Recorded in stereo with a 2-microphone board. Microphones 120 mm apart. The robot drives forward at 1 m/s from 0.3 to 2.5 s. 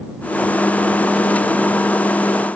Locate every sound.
Only background noise.